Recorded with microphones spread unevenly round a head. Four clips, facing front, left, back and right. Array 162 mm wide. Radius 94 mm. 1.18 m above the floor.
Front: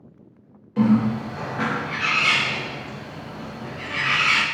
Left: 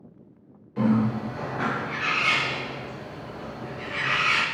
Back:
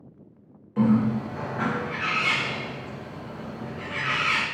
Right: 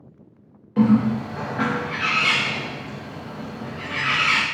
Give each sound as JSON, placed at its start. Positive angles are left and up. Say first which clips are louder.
{"t": 0.8, "sound": "a bird", "louder": "right 5 dB, front 2 dB", "azimuth_deg": -90, "distance_m": 0.7}